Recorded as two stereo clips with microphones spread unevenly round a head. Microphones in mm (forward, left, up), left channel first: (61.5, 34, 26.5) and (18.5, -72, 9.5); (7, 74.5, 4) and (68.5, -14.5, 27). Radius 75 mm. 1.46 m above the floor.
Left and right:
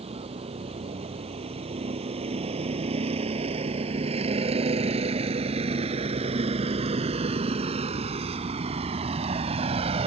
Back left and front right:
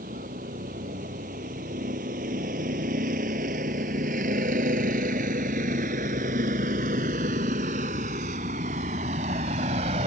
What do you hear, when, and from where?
0.0 s a vehicle: 75° right